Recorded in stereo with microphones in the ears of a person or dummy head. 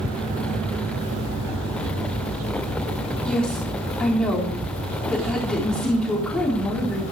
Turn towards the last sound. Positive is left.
turn(degrees=10)  # may be behind; listen again after turning